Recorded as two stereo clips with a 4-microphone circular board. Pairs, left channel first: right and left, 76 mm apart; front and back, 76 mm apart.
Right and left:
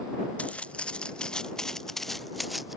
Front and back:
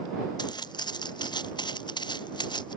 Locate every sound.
0.4 s footsteps: 15° right; by 2.8 s straight ahead